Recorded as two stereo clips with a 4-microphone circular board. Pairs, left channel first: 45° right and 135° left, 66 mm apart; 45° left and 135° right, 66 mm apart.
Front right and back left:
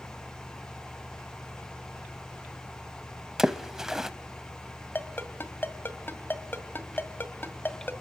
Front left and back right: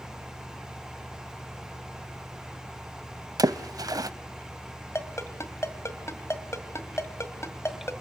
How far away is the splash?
About 0.7 m.